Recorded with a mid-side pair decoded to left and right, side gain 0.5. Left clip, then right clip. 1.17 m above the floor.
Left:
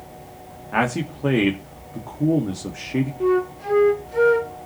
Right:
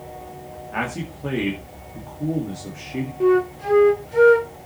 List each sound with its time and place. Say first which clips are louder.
0.7 s a man speaking: left 5 dB; 45° left, 2 m
3.2 s a flute: right 4 dB; 15° right, 1.2 m